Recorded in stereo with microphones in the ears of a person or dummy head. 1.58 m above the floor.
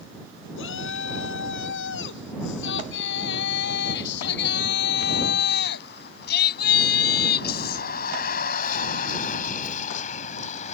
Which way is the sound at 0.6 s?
80° left.